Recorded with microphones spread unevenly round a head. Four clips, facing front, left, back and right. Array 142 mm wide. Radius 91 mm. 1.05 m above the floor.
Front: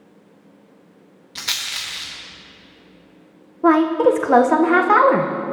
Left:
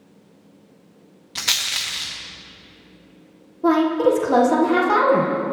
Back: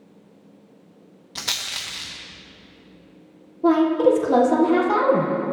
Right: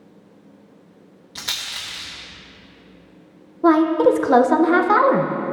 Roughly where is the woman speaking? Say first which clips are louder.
Right 2 dB, front 2 dB; ahead right.